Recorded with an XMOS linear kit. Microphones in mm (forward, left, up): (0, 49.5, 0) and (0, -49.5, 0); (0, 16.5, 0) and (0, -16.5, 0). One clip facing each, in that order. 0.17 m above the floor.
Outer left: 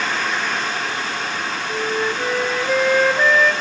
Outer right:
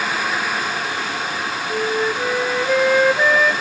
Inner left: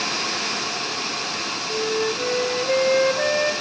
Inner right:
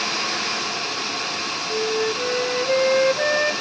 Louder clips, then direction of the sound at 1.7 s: Outer right 2 dB, inner right 1 dB; 5° right (ahead or behind).